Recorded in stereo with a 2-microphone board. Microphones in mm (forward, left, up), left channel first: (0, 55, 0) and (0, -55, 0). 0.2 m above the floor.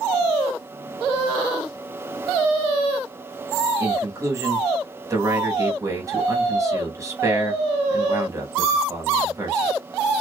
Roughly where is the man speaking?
Right.